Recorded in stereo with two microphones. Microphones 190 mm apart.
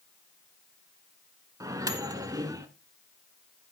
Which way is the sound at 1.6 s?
20° right (ahead or behind).